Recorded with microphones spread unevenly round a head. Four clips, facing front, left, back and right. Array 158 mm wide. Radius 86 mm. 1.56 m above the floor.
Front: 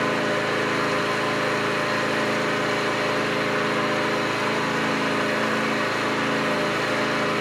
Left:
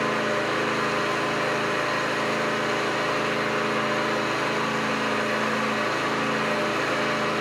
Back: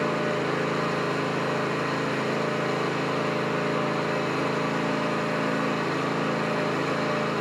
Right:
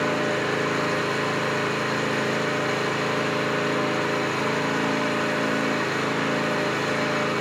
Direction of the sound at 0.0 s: 145° right.